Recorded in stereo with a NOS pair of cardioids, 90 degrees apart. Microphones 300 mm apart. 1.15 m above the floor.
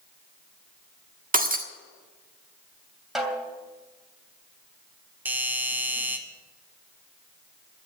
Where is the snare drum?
Straight ahead, 3 m.